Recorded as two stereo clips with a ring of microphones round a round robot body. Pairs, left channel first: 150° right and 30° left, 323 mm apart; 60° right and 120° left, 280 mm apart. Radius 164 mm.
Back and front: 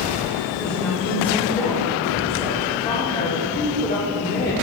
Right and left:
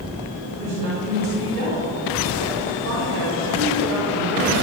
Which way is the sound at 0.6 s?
125° left.